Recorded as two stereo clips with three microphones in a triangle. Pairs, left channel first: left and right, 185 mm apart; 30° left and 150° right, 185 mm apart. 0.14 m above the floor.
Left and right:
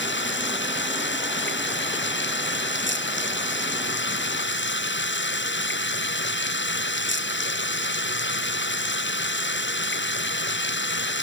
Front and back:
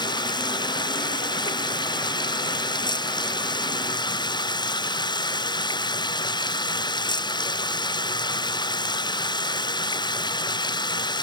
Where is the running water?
95° left.